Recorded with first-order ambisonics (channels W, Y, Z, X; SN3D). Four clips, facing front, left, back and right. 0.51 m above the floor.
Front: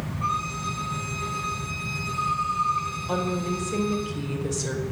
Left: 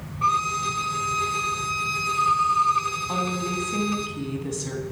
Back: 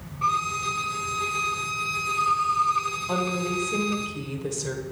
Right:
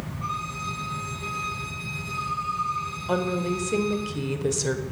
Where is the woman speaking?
90° right, 1.3 m.